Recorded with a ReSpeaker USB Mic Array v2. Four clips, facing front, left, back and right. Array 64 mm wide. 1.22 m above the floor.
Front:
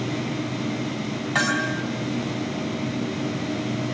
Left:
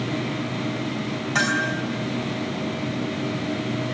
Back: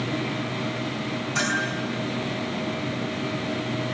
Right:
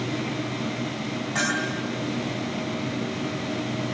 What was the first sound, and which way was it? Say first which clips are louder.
A bell: left 4 dB, front 3 dB; 15° left.